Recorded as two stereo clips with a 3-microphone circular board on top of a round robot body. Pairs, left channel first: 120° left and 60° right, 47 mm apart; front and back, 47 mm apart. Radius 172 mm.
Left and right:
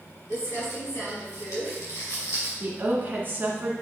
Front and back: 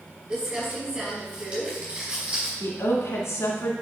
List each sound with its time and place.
0.3 s crumpling: 110° left, 3 m
2.6 s a woman speaking: 15° right, 1.9 m